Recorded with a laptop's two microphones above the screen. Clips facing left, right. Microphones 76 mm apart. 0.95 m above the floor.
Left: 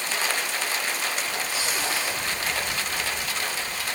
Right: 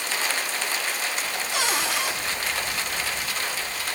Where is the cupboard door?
75° right (ahead or behind), 5 m.